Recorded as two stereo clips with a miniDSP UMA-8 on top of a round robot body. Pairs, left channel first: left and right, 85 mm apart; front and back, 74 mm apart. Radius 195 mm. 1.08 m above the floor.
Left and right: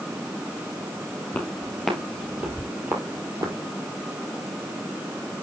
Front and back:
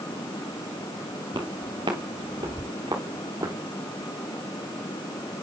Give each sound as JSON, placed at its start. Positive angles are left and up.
{"t": 1.3, "sound": "footsteps", "azimuth_deg": 160, "distance_m": 1.4}